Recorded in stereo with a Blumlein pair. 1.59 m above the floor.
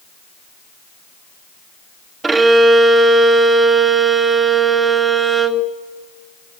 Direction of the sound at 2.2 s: 15° right.